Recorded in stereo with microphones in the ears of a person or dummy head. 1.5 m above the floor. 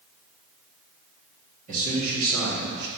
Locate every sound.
1.7 s a man speaking: 45° right (ahead or behind), 2.5 m; by 2.9 s 60° right (ahead or behind), 2.5 m